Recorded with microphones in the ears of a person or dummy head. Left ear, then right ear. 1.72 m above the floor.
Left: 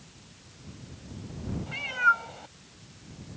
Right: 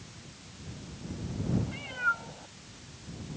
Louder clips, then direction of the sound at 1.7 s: Left 8 dB; 45° left (ahead or behind).